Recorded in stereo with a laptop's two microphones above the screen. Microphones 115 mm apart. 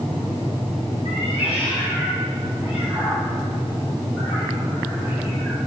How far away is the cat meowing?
About 3 m.